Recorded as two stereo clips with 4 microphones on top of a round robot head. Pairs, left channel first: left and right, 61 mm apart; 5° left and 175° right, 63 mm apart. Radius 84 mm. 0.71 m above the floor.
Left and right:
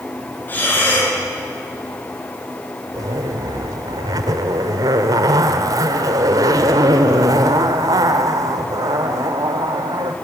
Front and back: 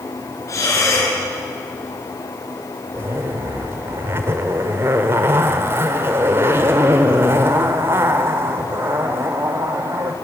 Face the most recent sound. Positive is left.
turn(degrees=-120)